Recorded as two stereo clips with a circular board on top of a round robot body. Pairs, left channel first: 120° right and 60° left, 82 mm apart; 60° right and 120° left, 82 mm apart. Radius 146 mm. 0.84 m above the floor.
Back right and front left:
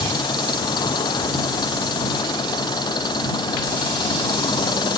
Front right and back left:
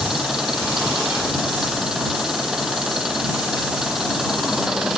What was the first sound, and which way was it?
An engine running, 155° right.